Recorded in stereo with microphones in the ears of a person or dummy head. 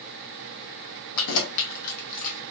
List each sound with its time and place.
1.2 s keys jangling: 65° left (ahead or behind), 0.6 m; by 2.4 s 35° left (ahead or behind), 1.1 m